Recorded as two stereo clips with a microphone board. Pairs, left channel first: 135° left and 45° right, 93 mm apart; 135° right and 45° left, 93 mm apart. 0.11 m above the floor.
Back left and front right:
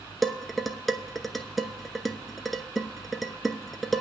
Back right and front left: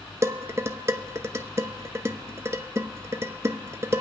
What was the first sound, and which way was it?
Dishes clattering, 45° left.